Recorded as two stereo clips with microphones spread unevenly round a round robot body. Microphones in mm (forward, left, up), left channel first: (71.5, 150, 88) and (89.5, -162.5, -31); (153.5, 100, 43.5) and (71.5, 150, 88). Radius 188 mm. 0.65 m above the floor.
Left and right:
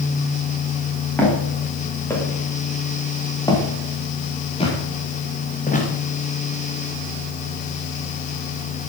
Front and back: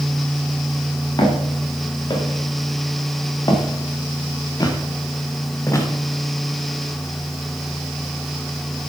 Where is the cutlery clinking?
I don't hear cutlery clinking.